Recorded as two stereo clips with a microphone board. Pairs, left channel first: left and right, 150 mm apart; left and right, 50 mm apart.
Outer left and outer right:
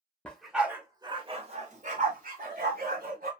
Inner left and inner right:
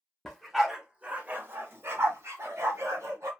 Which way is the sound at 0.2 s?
5° left (ahead or behind).